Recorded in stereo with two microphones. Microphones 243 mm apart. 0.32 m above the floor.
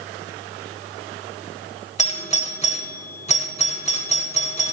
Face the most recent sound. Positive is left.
turn(degrees=25)  # may be behind; listen again after turning